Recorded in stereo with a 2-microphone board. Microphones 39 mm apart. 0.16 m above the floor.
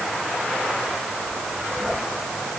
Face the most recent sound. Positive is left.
No sound to turn to.